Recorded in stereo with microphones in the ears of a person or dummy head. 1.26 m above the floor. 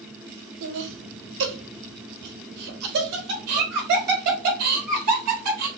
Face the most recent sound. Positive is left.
turn(degrees=-50)  # may be behind; listen again after turning